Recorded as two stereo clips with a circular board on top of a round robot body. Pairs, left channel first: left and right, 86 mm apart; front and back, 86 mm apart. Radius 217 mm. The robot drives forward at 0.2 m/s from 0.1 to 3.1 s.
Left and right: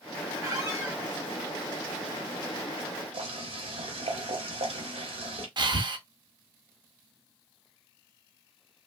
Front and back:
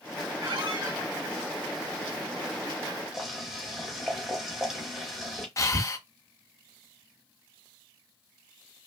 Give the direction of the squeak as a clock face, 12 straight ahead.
5 o'clock.